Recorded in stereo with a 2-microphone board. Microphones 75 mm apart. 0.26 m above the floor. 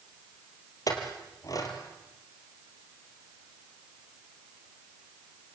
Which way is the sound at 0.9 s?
50° left (ahead or behind).